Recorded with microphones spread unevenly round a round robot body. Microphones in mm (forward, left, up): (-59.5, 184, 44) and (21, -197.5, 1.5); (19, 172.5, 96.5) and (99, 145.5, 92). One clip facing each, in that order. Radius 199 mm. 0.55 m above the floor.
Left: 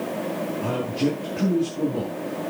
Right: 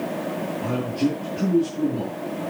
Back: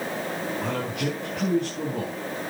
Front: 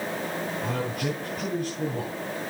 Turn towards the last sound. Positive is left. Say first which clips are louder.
# right 1 dB, back 1 dB
turn(degrees=180)